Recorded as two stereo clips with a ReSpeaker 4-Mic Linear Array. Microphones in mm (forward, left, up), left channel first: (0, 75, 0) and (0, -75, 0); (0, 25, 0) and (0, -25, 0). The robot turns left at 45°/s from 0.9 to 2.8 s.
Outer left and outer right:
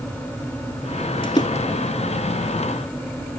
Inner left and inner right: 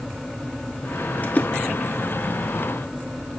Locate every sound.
1.2 s a splash: 35° left (ahead or behind), 0.9 m; by 1.5 s 25° left (ahead or behind), 0.9 m